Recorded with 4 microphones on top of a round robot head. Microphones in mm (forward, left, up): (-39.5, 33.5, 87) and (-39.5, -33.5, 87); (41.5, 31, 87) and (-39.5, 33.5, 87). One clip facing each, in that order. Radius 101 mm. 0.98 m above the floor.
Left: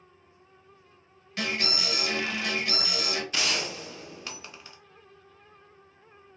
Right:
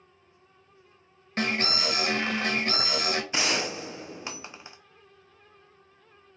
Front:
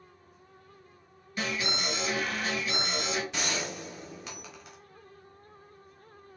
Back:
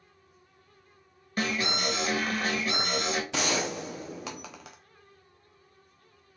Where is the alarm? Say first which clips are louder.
Right 3 dB, back 3 dB; 140° right, 1.3 m.